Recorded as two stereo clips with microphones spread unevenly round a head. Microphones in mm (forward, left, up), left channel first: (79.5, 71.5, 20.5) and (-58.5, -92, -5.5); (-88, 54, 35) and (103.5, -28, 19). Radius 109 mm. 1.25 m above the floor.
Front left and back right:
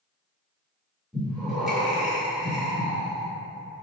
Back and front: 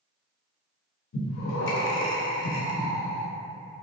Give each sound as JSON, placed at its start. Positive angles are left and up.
{"t": 1.1, "sound": "breathing", "azimuth_deg": 145, "distance_m": 0.6}